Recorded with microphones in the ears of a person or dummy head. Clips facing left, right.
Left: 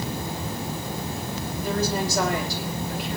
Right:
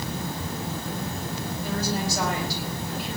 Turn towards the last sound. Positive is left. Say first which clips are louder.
# left 3 dB
turn(degrees=70)  # may be behind; listen again after turning